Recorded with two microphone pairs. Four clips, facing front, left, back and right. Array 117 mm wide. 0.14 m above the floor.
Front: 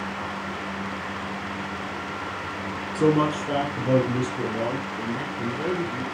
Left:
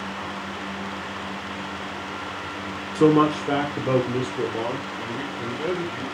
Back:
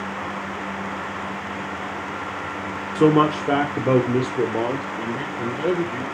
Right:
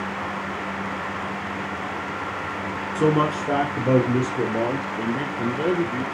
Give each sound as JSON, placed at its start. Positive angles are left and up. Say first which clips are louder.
{"t": 3.0, "sound": "a man speaking", "louder": "left 3 dB, back 4 dB", "azimuth_deg": 145, "distance_m": 1.5}
{"t": 5.0, "sound": "a man speaking", "louder": "right 5 dB, back 2 dB", "azimuth_deg": -120, "distance_m": 3.0}